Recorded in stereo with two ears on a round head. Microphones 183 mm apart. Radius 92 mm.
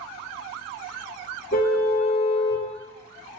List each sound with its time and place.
1.5 s a car horn: 40° left (ahead or behind), 2.5 m